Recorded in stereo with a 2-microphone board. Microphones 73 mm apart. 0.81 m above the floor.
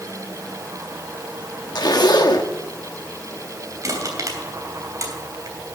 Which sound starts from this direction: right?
Crushing, at 3.8 s.